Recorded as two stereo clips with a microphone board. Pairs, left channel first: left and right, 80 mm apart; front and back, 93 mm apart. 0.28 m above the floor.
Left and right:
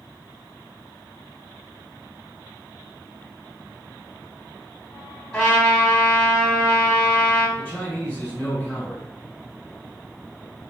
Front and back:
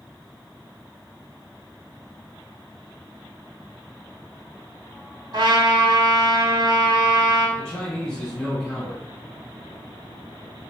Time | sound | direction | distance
5.3 | a trumpet | 165° left | 1.2 m
7.6 | a man speaking | 60° left | 1.4 m